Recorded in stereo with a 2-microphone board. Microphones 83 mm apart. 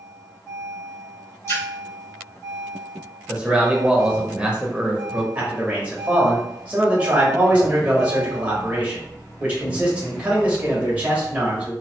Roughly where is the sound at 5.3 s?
Centre.